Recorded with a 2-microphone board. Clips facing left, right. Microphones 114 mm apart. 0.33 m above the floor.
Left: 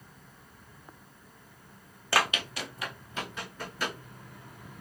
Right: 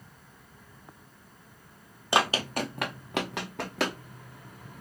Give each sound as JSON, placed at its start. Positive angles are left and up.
{"t": 2.1, "sound": "running footsteps", "side_deg": -20, "distance_m": 0.5}